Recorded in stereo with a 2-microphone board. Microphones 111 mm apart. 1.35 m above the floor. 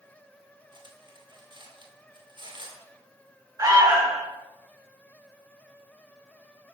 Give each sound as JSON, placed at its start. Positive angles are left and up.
{"t": 0.7, "sound": "cutlery clinking", "side_deg": -45, "distance_m": 2.0}
{"t": 3.6, "sound": "an alarm", "side_deg": -30, "distance_m": 6.0}